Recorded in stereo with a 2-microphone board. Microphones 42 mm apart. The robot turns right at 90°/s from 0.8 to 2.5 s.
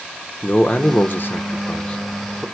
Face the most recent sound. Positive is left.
turn(degrees=-165)